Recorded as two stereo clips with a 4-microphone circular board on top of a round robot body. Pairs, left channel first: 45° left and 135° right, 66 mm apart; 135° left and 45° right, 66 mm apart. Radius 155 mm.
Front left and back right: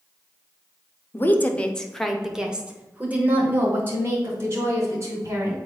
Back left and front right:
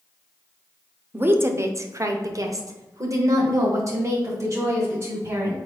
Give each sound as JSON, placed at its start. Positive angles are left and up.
{"t": 1.1, "sound": "a woman speaking", "azimuth_deg": 5, "distance_m": 1.1}